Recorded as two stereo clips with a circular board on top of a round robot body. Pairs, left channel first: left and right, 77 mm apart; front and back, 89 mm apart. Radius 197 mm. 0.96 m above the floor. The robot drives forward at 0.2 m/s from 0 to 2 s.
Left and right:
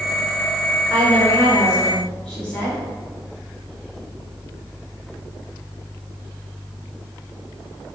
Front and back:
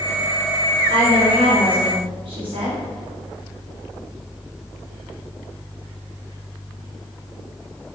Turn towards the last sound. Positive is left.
turn(degrees=170)